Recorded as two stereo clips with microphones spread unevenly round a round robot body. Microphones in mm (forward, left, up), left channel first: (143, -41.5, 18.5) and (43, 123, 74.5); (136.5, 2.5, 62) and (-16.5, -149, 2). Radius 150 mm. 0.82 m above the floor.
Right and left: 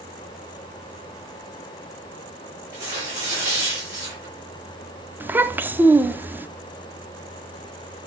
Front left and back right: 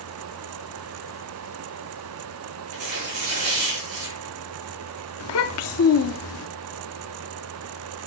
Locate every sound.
2.7 s tearing paper: 160° right, 6 m
5.2 s a child speaking: 40° left, 0.8 m